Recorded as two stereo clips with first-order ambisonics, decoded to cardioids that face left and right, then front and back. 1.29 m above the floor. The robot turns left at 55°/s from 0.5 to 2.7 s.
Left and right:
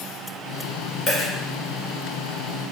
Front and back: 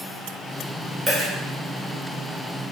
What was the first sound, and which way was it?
A dropped coin, 110° left.